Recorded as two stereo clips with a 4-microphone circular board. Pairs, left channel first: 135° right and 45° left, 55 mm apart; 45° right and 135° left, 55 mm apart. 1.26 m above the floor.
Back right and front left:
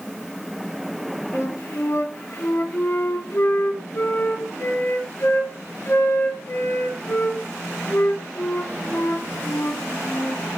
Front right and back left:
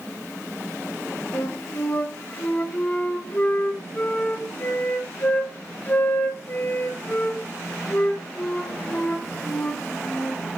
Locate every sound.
1.3 s a flute: 100° right, 3.5 m